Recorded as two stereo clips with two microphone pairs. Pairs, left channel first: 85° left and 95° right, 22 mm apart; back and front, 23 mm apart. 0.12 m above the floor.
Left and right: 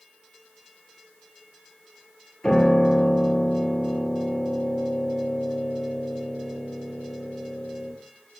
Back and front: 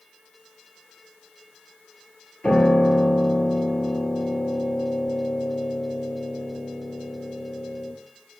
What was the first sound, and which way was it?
A piano, 150° left.